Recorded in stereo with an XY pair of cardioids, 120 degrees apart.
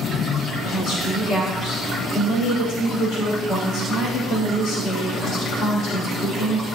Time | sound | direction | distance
0.6 | a woman speaking | 65° left | 5 m